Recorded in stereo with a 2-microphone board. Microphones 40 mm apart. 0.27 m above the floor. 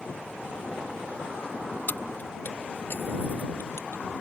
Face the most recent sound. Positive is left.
turn(degrees=65)  # may be behind; listen again after turning